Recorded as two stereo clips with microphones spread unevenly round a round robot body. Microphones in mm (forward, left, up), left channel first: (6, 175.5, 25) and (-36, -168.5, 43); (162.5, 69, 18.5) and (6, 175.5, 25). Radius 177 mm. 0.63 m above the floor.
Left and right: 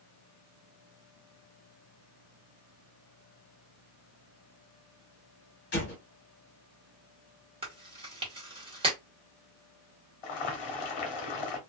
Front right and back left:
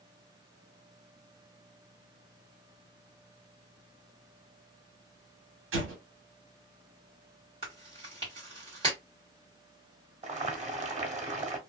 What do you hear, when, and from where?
5.7 s an explosion: 145° left, 1.1 m
7.6 s chewing: 165° right, 1.4 m
10.2 s boiling: 90° left, 1.0 m